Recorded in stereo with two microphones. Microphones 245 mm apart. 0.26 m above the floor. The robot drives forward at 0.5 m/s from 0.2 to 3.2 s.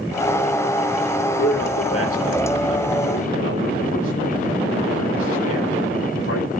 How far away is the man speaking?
About 8.5 m.